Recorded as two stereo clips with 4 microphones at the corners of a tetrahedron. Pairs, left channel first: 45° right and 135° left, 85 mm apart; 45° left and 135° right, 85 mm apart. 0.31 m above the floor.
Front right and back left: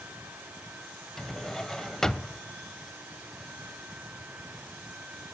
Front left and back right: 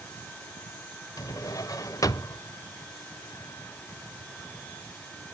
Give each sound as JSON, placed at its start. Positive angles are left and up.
{"t": 1.2, "sound": "a drawer", "azimuth_deg": 35, "distance_m": 0.6}